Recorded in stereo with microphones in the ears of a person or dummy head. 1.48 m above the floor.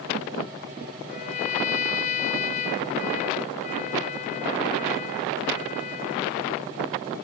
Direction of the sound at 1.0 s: 40° left (ahead or behind).